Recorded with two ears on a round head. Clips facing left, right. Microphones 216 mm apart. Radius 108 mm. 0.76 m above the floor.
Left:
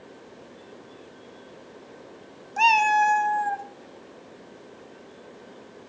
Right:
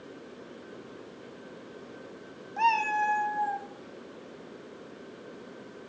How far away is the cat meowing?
About 0.5 m.